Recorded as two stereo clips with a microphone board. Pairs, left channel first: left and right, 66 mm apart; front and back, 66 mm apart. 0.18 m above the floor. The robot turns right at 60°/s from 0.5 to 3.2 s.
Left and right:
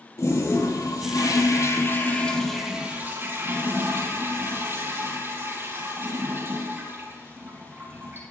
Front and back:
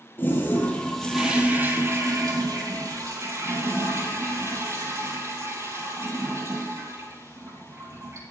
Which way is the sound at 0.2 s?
55° left.